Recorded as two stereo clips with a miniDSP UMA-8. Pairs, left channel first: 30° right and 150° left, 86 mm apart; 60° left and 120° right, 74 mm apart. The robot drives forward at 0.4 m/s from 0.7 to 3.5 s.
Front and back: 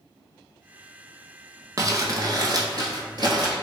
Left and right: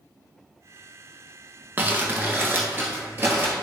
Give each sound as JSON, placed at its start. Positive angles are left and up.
{"t": 1.8, "sound": "crumpling", "azimuth_deg": -175, "distance_m": 0.6}